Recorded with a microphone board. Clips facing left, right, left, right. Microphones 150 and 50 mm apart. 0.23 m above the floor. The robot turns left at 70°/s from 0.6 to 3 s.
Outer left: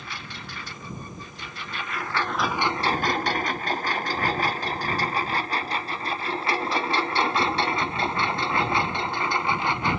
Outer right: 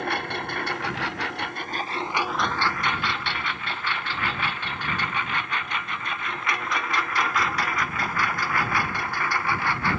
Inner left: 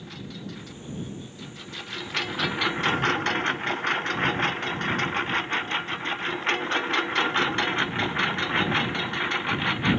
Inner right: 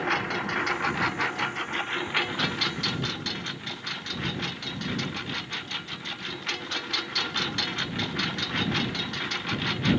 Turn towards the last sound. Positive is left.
turn(degrees=20)  # may be behind; listen again after turning